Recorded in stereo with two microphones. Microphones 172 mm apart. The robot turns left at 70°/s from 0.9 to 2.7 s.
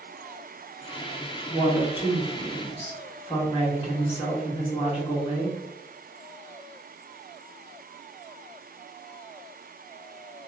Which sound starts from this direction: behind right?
A woman speaking, at 1.5 s.